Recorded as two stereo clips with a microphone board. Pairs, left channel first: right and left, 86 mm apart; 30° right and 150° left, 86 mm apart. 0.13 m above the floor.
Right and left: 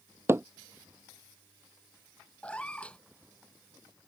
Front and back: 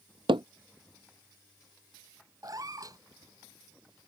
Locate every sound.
0.3 s hammering: 150° left
2.4 s a cat meowing: 165° right